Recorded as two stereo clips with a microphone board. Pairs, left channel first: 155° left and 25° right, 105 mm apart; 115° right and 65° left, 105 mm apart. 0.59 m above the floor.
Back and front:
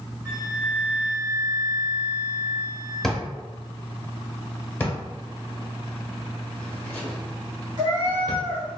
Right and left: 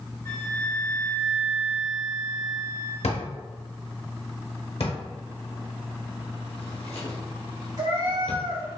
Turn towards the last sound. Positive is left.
turn(degrees=25)